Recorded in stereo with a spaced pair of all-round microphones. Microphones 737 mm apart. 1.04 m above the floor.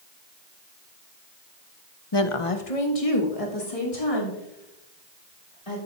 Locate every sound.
2.1 s a woman speaking: 35° left (ahead or behind), 0.6 m; by 5.8 s 45° left (ahead or behind), 5 m